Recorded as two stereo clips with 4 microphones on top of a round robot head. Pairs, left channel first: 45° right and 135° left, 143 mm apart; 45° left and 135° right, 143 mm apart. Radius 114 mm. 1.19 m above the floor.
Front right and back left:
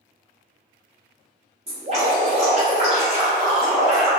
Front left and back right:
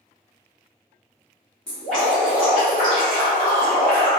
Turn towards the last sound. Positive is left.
turn(degrees=125)